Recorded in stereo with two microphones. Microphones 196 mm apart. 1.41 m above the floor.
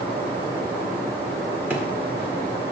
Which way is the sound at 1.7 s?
10° right (ahead or behind).